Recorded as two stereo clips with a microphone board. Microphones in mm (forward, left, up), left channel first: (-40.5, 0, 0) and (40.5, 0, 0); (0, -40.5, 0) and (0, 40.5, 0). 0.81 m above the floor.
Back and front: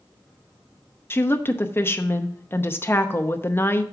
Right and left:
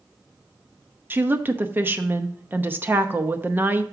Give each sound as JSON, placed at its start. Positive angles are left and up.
{"t": 1.1, "sound": "a woman speaking", "azimuth_deg": 135, "distance_m": 0.7}